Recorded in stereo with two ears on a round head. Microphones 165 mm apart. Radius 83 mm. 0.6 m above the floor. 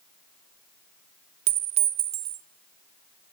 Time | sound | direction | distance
1.5 | a clink | 35° right (ahead or behind) | 0.5 m